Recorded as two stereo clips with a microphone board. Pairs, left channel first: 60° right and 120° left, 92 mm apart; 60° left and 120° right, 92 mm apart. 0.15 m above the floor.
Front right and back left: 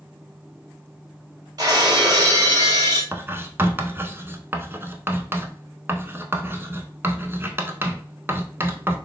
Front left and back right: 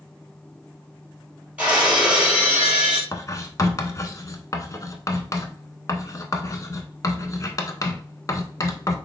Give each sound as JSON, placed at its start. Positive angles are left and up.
{"t": 1.6, "sound": "breaking glass", "azimuth_deg": 165, "distance_m": 1.6}
{"t": 3.1, "sound": "writing", "azimuth_deg": 75, "distance_m": 0.6}